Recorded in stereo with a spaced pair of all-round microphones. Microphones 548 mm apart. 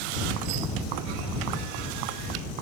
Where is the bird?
No bird in this recording.